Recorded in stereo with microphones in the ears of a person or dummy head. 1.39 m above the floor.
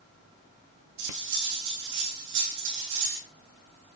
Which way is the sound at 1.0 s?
60° right (ahead or behind).